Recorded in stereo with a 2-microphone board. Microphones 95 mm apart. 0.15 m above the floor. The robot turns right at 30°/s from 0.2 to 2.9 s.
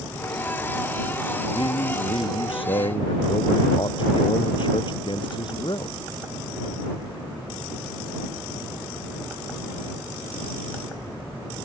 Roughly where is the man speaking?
Left.